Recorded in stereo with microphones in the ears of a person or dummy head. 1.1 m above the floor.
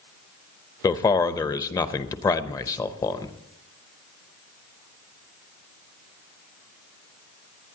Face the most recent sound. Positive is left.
turn(degrees=20)  # may be behind; listen again after turning